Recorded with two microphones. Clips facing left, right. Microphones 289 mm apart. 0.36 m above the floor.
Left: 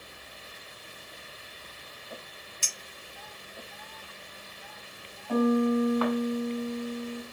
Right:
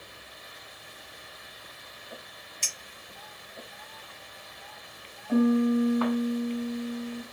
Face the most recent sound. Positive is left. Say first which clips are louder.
# right 2 dB
turn(degrees=-5)  # may be behind; listen again after turning